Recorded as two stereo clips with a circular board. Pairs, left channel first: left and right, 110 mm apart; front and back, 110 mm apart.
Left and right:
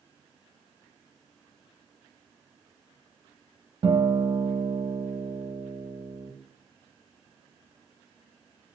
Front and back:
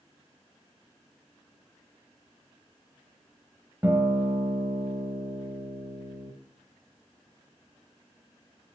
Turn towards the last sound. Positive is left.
turn(degrees=-110)